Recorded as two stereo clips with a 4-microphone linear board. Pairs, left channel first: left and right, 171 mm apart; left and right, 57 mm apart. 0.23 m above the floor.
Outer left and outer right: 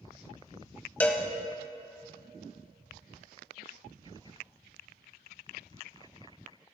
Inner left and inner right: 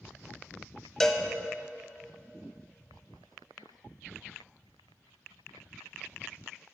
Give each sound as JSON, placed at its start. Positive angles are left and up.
{"t": 1.0, "sound": "a cowbell", "side_deg": 10, "distance_m": 0.7}